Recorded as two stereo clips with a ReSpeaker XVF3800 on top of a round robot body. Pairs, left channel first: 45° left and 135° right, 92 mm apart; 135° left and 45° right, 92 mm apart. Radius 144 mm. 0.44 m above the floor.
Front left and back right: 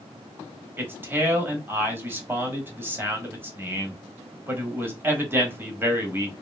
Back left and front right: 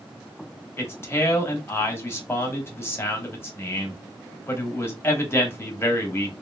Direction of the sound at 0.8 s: 175° left.